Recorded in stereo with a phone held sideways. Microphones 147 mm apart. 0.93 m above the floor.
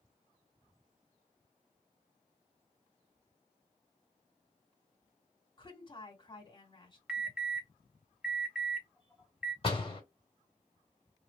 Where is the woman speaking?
35° left (ahead or behind), 2 m.